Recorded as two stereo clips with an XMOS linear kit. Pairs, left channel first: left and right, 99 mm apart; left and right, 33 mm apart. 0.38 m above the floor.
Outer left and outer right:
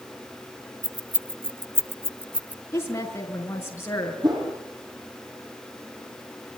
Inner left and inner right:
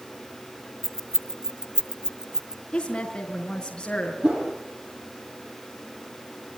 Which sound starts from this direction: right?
A whoosh, at 4.2 s.